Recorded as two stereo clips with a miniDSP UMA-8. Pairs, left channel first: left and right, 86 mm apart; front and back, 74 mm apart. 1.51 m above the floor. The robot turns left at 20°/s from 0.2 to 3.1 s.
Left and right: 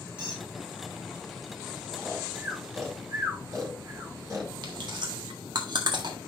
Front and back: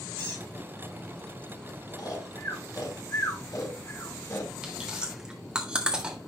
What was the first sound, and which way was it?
A squeak, 70° right.